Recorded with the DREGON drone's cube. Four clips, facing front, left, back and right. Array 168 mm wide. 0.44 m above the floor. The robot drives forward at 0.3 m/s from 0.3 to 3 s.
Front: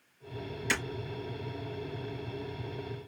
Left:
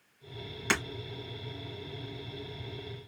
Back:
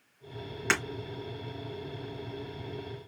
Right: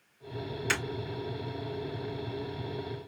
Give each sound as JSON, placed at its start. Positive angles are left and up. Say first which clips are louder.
{"t": 0.7, "sound": "breaking glass", "louder": "left 2 dB, back 4 dB", "azimuth_deg": 150, "distance_m": 3.0}